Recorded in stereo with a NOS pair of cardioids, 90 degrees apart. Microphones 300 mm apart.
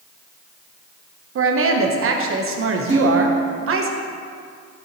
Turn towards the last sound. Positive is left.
turn(degrees=-20)